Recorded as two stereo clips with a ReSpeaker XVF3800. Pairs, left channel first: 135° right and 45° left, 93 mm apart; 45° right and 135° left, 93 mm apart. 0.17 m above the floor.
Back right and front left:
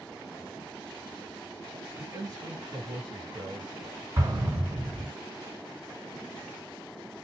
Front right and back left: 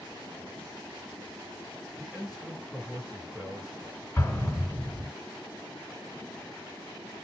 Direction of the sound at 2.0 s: 50° left.